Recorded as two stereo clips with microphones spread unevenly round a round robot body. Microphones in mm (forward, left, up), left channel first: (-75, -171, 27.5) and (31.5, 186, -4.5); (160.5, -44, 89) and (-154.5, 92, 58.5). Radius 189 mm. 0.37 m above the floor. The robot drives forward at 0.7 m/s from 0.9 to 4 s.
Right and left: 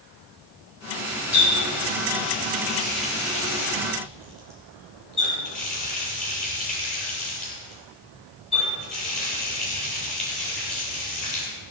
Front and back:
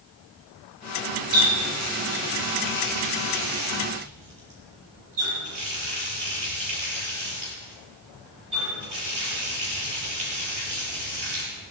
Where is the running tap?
160° left, 5.5 m; by 11.5 s 165° left, 7 m.